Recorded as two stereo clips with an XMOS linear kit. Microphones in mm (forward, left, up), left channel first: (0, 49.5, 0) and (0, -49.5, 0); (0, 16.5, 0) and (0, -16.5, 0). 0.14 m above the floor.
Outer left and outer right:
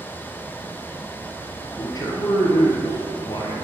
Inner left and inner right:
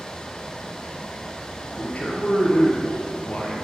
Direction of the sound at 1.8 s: 40° left (ahead or behind).